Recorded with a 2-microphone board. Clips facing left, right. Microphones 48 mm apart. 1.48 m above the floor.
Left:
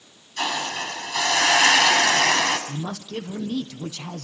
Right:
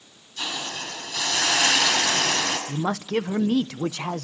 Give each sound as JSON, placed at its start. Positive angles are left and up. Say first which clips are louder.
{"t": 0.4, "sound": "a hiss", "louder": "left 5 dB", "side_deg": 65, "distance_m": 7.5}
{"t": 2.7, "sound": "a man speaking", "louder": "right 6 dB", "side_deg": -80, "distance_m": 1.1}